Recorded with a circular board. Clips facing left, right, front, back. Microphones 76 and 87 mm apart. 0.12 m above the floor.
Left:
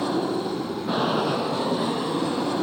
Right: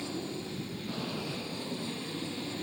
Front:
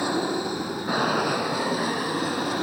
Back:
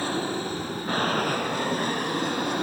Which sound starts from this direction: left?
An aircraft, at 0.0 s.